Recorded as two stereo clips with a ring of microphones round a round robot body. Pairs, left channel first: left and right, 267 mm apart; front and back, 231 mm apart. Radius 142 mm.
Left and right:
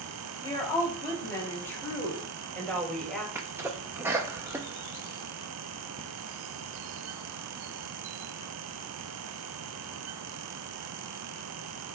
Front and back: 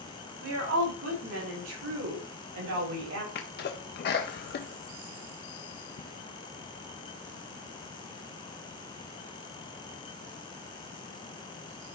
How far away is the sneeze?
About 0.8 m.